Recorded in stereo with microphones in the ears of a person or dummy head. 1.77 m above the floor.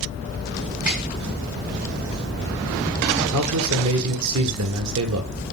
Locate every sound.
0.9 s a snare drum: 10° right (ahead or behind), 1.9 m
3.3 s a man speaking: 80° right, 0.6 m